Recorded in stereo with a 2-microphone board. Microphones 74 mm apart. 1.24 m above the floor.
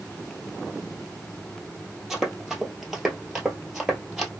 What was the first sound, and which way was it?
Running footsteps, 5° right (ahead or behind).